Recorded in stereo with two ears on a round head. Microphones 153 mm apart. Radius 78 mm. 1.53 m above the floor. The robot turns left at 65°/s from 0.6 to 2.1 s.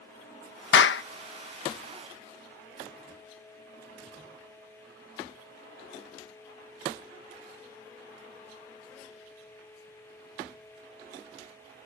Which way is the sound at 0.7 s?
80° left.